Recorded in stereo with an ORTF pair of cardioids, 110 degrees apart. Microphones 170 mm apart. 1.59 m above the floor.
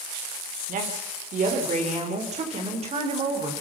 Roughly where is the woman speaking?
Ahead right.